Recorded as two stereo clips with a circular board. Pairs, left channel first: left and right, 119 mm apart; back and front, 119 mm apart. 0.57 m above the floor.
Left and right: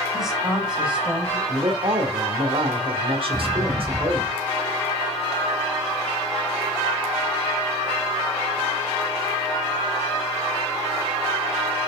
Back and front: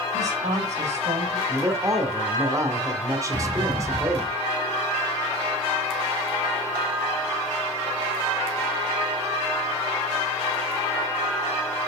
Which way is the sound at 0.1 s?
5° right.